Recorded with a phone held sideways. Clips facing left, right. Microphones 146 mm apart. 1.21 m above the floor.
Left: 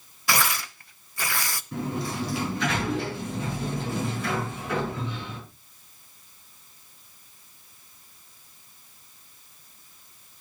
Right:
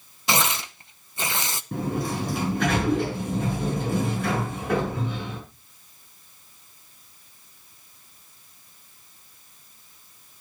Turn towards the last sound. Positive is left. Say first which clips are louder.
# right 3 dB
turn(degrees=-55)  # may be behind; listen again after turning